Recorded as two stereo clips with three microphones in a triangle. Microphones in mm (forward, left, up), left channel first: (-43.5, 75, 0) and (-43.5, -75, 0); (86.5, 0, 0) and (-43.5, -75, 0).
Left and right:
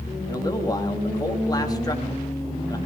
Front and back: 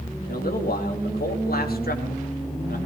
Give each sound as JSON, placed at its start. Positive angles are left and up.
{"t": 0.3, "sound": "a man speaking", "azimuth_deg": 25, "distance_m": 3.0}